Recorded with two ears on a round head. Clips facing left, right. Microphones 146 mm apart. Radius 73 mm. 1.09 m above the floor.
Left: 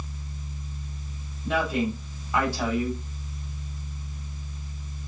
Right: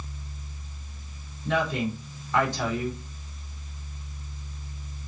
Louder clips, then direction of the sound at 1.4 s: Left 1 dB; 5° left (ahead or behind).